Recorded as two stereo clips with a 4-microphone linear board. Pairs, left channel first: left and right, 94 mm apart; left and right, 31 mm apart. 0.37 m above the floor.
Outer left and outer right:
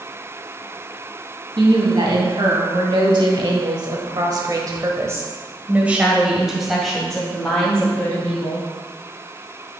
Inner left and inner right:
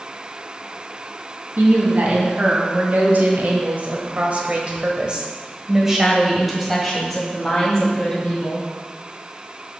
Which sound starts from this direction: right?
A woman speaking, at 1.6 s.